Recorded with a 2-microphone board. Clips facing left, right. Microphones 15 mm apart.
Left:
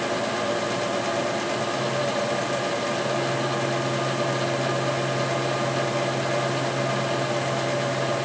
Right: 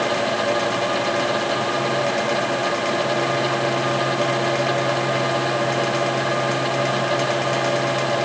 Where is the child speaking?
I don't hear a child speaking.